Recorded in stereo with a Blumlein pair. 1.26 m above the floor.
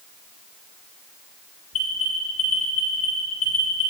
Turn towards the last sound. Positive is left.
turn(degrees=35)